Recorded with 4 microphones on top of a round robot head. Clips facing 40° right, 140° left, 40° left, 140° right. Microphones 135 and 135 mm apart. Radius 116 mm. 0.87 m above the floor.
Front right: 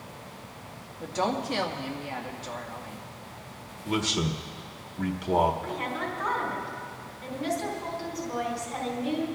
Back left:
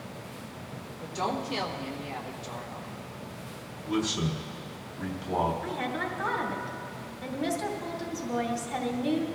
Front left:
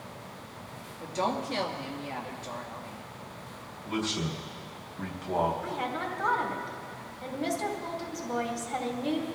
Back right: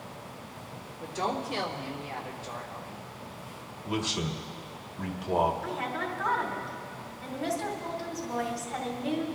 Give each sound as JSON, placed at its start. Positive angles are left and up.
{"t": 1.0, "sound": "a woman speaking", "azimuth_deg": -5, "distance_m": 2.0}
{"t": 3.9, "sound": "a man speaking", "azimuth_deg": -65, "distance_m": 1.7}
{"t": 5.6, "sound": "a woman speaking", "azimuth_deg": 100, "distance_m": 2.5}